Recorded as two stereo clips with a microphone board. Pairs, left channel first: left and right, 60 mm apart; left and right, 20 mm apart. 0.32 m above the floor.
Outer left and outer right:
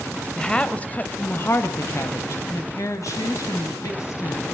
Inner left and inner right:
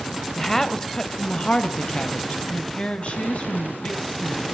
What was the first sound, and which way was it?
A woman speaking, 10° left (ahead or behind).